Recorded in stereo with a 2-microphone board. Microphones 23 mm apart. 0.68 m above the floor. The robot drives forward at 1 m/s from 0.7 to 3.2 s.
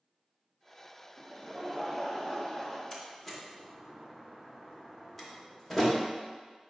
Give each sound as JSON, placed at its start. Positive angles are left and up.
{"t": 1.2, "sound": "laughter", "side_deg": -25, "distance_m": 0.8}
{"t": 2.9, "sound": "a door slam", "side_deg": 15, "distance_m": 0.6}